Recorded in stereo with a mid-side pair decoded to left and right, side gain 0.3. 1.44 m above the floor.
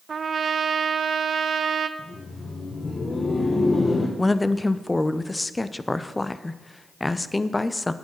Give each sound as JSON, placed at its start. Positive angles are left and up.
{"t": 0.1, "sound": "a trumpet", "azimuth_deg": -60, "distance_m": 0.7}
{"t": 2.0, "sound": "laughter", "azimuth_deg": 45, "distance_m": 1.4}
{"t": 4.2, "sound": "a woman speaking", "azimuth_deg": 25, "distance_m": 0.8}